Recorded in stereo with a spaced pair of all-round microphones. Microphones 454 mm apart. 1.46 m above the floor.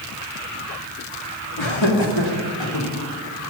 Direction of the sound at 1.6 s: 75° left (ahead or behind).